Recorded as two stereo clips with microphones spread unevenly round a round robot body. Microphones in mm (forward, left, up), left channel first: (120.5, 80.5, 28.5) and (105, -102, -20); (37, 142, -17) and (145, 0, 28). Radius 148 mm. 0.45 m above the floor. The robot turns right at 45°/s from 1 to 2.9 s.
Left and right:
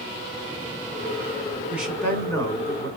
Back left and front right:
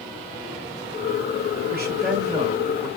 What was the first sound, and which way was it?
A man speaking, 25° right.